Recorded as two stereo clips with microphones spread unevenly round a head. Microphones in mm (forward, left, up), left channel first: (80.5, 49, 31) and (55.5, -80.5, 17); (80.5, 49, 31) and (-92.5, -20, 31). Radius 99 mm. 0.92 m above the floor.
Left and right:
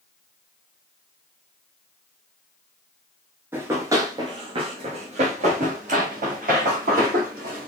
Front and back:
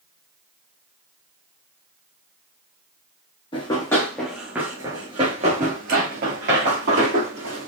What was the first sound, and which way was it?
Running footsteps, 30° right.